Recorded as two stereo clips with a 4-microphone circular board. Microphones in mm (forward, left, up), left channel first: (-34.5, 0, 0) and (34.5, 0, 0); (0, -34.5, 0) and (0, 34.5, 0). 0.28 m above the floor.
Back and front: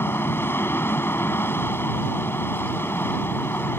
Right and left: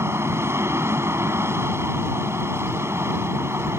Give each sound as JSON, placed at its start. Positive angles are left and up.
{"t": 0.0, "sound": "an aircraft", "azimuth_deg": 130}